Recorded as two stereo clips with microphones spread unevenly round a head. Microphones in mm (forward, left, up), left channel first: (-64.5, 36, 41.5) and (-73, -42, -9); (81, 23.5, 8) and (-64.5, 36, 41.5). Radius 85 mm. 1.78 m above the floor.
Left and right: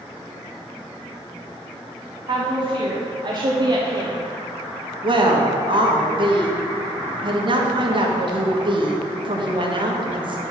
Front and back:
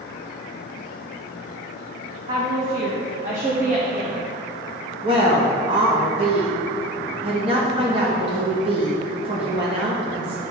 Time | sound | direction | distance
2.3 | a woman speaking | 135° right | 1.7 m
5.0 | a woman speaking | 135° right | 1.7 m